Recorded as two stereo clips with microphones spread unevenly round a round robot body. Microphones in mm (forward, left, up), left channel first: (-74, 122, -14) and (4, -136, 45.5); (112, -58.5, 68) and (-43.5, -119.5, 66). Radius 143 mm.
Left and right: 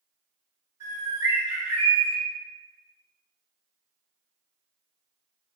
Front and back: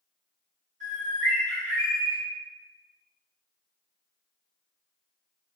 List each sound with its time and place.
0.8 s a bird: 160° right, 1.7 m